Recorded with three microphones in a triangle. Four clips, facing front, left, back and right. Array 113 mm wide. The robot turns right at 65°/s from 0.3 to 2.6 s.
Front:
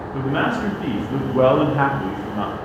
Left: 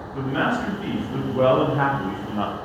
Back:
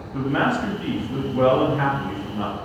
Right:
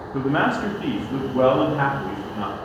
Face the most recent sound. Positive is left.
turn(degrees=65)